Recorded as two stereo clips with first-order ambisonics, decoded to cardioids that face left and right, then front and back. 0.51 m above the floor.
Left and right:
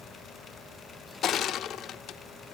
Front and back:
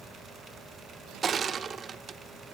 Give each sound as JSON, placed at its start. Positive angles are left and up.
{"t": 1.2, "sound": "crushing", "azimuth_deg": 125, "distance_m": 0.6}